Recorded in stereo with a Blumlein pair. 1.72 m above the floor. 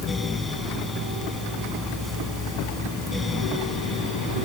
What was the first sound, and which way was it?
A fan, 10° left.